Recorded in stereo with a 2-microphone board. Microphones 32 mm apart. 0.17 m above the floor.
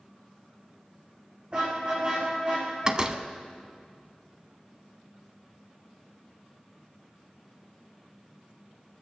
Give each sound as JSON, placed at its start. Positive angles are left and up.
{"t": 1.5, "sound": "a car horn", "side_deg": -35, "distance_m": 7.0}
{"t": 2.9, "sound": "a door slam", "side_deg": -25, "distance_m": 0.7}